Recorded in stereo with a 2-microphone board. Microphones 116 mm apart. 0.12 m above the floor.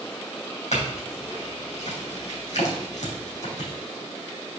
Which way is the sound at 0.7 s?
75° left (ahead or behind).